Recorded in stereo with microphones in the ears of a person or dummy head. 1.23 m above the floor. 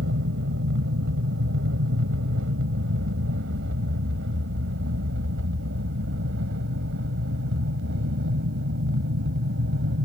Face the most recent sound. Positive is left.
turn(degrees=-70)  # may be behind; listen again after turning